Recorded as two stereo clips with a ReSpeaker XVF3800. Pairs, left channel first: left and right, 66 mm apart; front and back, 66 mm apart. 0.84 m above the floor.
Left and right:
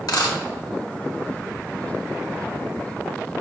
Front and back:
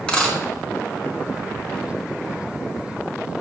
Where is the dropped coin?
75° left, 1.4 m.